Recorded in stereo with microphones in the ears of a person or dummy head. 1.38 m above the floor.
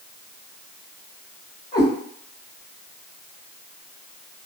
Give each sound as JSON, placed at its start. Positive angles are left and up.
{"t": 1.7, "sound": "a cat meowing", "side_deg": 40, "distance_m": 1.5}